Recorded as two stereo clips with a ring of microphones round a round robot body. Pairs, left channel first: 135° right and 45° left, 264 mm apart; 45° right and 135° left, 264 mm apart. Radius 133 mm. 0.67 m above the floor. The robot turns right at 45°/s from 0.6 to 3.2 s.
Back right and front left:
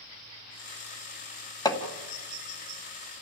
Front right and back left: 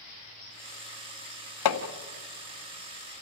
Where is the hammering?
60° right, 1.9 m; by 1.8 s 50° right, 1.9 m.